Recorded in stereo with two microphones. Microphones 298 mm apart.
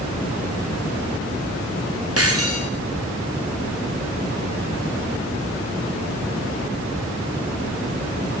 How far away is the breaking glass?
About 7.5 m.